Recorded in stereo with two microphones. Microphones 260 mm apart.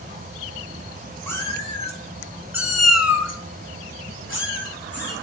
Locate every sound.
1.3 s a cat meowing: 10° left (ahead or behind), 0.9 m; by 5.1 s 40° left (ahead or behind), 1.3 m